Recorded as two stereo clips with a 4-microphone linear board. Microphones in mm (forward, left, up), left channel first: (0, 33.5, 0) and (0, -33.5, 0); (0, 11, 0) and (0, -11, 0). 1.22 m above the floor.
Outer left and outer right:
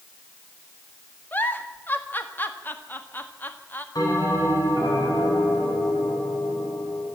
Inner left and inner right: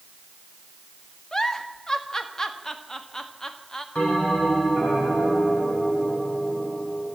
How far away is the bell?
About 8.5 m.